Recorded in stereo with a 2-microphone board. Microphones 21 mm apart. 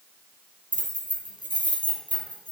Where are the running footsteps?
No running footsteps in this recording.